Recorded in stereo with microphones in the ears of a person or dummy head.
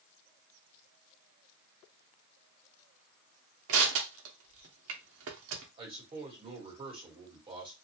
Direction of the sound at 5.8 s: 25° right (ahead or behind).